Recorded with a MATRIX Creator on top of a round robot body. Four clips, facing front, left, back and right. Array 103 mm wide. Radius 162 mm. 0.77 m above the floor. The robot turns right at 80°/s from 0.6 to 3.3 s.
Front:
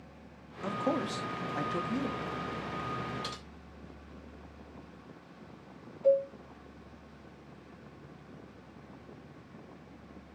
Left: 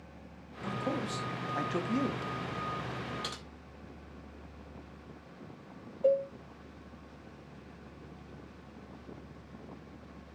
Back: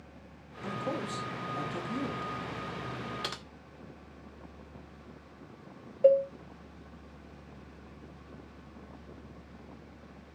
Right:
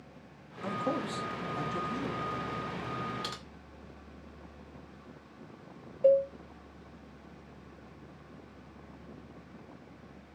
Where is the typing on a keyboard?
175° right, 1.7 m; by 3.4 s 170° right, 1.7 m.